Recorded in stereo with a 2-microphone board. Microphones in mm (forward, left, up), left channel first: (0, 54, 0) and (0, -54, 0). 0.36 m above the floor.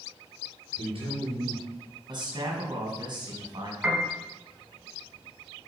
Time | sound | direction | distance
0.8 | a man speaking | 55° right (ahead or behind) | 6 m
2.1 | a man speaking | 45° right (ahead or behind) | 3.5 m
3.8 | a piano | 10° right (ahead or behind) | 3.5 m